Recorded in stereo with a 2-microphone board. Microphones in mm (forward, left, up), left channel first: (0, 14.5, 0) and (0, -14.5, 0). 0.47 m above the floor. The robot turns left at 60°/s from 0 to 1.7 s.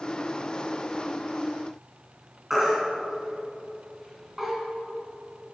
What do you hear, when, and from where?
2.5 s a baby crying: 5° right (ahead or behind), 3 m